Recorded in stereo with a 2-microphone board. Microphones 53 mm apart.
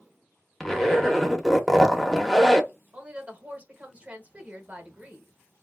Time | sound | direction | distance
0.6 | a zipper | 5° left (ahead or behind) | 0.7 m
2.9 | a woman speaking | 25° right (ahead or behind) | 0.9 m